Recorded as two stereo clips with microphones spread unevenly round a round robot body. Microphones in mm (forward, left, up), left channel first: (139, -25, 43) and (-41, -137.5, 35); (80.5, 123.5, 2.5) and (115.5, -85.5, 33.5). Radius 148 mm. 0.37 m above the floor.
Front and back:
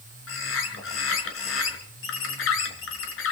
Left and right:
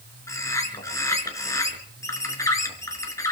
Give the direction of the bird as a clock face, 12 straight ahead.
11 o'clock.